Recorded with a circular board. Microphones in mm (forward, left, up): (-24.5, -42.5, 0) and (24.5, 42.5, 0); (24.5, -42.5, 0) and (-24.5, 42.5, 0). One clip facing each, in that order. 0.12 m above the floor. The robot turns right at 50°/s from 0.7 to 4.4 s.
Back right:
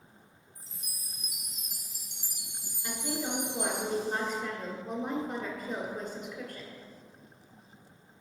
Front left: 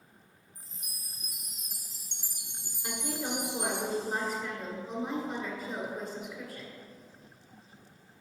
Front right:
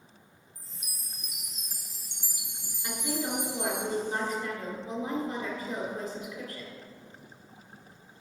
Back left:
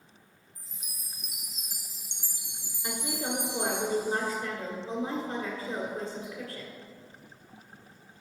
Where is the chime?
Straight ahead, 0.9 m; by 3.8 s 160° left, 0.9 m.